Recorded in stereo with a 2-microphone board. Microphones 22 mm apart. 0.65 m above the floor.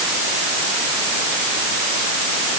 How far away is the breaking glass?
No breaking glass in this recording.